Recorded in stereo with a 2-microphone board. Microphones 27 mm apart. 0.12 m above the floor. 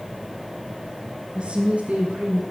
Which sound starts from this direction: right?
A woman speaking, at 1.4 s.